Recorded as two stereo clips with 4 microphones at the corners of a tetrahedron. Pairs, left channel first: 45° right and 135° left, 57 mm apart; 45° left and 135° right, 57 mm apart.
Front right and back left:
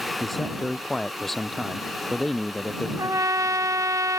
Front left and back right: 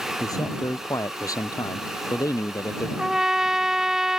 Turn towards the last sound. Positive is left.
turn(degrees=145)